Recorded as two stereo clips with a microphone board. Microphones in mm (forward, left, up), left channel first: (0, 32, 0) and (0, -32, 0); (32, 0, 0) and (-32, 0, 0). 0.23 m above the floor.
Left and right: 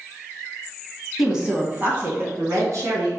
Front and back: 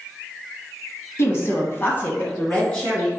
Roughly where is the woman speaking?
Ahead.